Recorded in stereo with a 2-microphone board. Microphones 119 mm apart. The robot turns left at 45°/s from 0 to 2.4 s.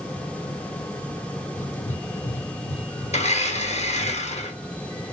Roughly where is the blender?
Left.